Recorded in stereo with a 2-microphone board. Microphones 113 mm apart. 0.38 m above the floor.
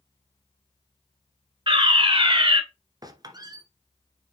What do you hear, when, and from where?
1.7 s a fire alarm: 50° right (ahead or behind), 3 m
3.0 s a squeak: 35° right (ahead or behind), 1.5 m